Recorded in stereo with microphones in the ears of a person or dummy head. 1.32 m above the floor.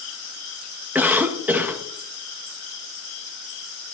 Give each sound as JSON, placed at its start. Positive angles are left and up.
{"t": 0.9, "sound": "a cough", "side_deg": -5, "distance_m": 1.2}